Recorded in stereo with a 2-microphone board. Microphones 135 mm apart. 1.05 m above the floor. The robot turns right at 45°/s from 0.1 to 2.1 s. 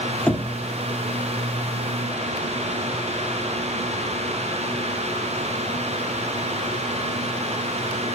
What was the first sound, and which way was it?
Knocking, 10° left (ahead or behind).